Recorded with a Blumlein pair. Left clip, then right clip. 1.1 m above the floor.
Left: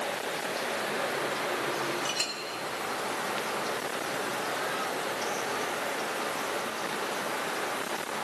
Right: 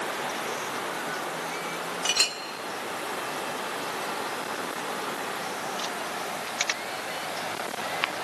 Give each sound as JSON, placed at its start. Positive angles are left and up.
{"t": 2.0, "sound": "a clink", "azimuth_deg": -25, "distance_m": 1.6}